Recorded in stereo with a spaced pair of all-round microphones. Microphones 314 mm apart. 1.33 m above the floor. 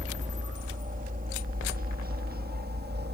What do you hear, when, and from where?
0.0 s a helicopter: 25° right (ahead or behind); by 3.1 s 30° right (ahead or behind)